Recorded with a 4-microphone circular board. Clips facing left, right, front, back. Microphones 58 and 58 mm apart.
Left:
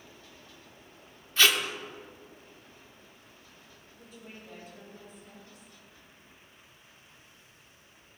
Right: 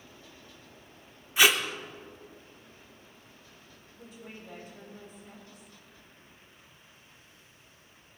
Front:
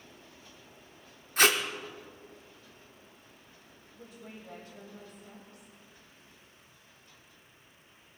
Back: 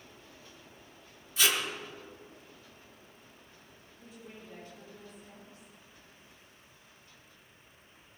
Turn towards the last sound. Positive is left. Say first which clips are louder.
# right 2 dB, front 2 dB
turn(degrees=-15)